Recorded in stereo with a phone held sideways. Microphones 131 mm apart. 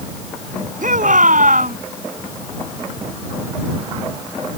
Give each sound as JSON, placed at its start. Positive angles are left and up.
{"t": 0.8, "sound": "a shout", "side_deg": -85}